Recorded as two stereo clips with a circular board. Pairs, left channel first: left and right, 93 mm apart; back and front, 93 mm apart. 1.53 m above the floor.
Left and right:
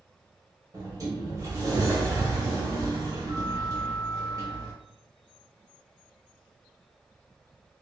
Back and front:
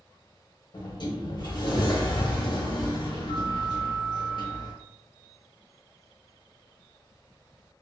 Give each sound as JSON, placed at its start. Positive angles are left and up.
{"t": 0.7, "sound": "a sliding door", "azimuth_deg": -140, "distance_m": 0.9}